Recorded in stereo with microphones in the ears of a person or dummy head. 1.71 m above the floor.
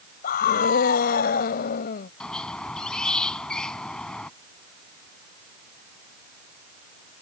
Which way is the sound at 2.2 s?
Centre (ahead or behind).